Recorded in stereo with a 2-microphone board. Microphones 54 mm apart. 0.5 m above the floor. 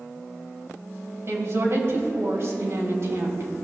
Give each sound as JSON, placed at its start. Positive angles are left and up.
{"t": 1.3, "sound": "a woman speaking", "side_deg": -50, "distance_m": 2.5}